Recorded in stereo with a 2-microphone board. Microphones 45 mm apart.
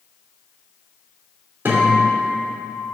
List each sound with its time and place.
1.6 s a guitar: 50° right (ahead or behind), 2.5 m